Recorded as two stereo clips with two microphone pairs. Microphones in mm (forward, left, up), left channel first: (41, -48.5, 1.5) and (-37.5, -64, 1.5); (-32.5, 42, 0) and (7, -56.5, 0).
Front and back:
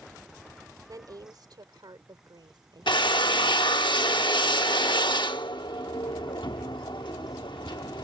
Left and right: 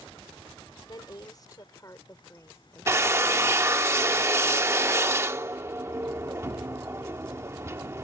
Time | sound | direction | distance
0.9 | a woman speaking | 155° left | ?
2.9 | a drill | 5° right | ?